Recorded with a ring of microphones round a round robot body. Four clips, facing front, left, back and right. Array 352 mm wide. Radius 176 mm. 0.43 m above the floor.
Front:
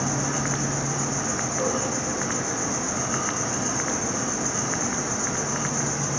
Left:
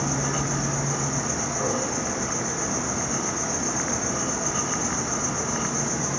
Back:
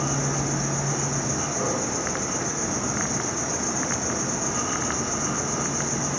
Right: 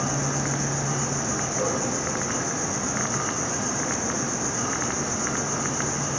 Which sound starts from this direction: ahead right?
An insect, at 0.0 s.